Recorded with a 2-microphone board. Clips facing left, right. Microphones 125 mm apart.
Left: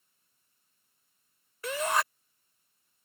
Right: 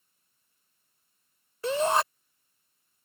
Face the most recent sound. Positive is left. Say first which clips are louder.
# right 5 dB
turn(degrees=-30)  # may be behind; listen again after turning